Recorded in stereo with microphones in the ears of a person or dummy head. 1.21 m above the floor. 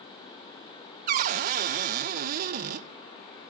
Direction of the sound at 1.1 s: 40° right (ahead or behind).